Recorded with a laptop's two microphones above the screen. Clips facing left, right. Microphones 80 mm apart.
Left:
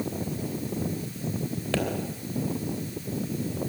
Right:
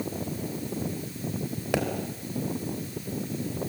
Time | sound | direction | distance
1.7 | a pop | 15° right (ahead or behind) | 3 m